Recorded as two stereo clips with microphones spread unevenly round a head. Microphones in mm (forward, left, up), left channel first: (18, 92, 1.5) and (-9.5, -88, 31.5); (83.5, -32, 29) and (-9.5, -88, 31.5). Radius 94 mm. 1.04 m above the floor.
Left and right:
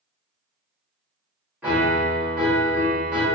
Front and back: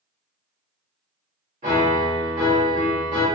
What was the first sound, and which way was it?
A piano, 175° left.